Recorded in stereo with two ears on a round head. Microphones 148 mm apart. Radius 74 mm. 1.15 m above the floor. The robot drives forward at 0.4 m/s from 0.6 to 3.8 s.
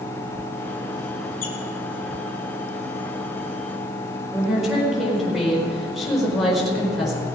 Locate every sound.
1.4 s a squeak: 55° left (ahead or behind), 3 m
4.3 s a woman speaking: centre (ahead or behind), 4 m